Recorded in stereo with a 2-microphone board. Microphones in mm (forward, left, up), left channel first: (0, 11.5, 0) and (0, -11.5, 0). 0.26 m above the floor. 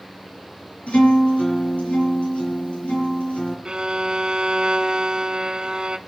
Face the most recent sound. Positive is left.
turn(degrees=-40)  # may be behind; listen again after turning